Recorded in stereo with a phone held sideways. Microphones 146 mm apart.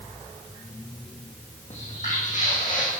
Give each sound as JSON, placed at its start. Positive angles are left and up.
{"t": 1.7, "sound": "footsteps", "side_deg": 50, "distance_m": 3.5}